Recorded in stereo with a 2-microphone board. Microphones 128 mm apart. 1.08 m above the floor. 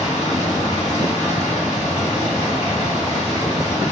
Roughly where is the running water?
Left.